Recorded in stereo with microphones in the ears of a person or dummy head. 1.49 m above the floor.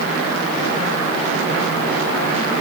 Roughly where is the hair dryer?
I don't hear a hair dryer.